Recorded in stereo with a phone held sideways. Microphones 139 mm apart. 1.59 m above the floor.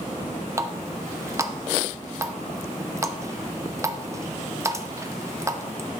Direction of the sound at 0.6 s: 20° right (ahead or behind).